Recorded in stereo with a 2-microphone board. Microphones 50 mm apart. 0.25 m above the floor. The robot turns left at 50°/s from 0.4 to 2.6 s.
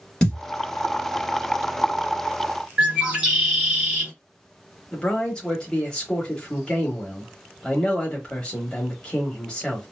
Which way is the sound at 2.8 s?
15° right (ahead or behind).